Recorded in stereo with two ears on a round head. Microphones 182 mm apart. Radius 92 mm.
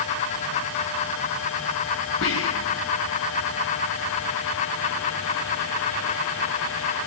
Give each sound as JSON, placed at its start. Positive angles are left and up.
{"t": 2.2, "sound": "whispering", "side_deg": 65, "distance_m": 4.0}